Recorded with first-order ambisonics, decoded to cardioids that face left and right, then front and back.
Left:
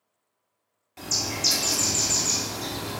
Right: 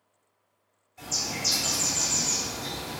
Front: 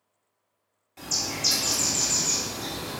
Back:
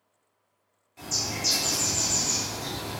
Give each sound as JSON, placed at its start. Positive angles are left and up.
{"t": 1.0, "sound": "a bird", "azimuth_deg": 70, "distance_m": 0.9}